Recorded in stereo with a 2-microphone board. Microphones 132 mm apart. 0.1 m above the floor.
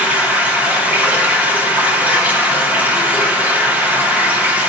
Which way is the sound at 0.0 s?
15° right (ahead or behind).